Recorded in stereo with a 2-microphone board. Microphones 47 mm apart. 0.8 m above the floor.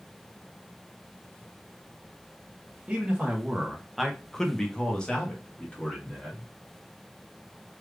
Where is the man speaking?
20° right (ahead or behind), 0.9 m; by 6.5 s 25° left (ahead or behind), 1.7 m.